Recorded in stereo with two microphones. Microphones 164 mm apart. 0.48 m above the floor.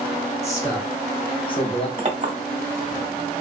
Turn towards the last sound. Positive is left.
turn(degrees=-45)  # may be behind; listen again after turning